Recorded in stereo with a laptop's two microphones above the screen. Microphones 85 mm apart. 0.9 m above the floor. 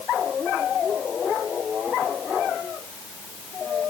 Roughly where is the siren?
No siren in this recording.